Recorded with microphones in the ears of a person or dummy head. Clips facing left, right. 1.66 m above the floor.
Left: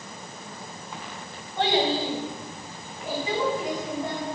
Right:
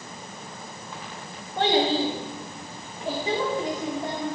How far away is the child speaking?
About 1.8 m.